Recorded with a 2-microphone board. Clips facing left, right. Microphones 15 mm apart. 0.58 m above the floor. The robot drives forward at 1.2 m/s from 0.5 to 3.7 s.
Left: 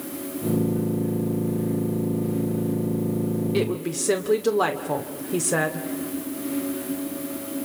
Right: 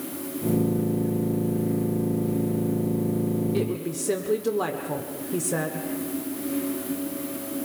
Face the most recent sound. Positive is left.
turn(degrees=25)  # may be behind; listen again after turning